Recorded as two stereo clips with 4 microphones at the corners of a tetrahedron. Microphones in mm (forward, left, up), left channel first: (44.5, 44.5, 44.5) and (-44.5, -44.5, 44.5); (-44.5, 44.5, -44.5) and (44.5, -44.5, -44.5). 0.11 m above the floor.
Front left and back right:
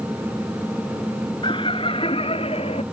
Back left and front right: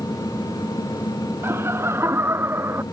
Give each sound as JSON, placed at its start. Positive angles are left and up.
{"t": 1.4, "sound": "laughter", "azimuth_deg": 20}